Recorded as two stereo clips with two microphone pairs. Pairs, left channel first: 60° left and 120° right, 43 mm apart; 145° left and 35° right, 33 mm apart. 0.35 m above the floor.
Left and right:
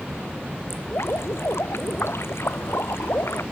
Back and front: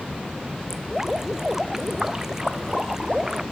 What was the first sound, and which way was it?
Dripping, 45° left.